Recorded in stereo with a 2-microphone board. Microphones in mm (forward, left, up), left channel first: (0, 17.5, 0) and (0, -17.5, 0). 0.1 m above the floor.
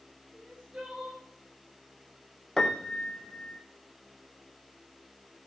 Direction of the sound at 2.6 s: 20° left (ahead or behind).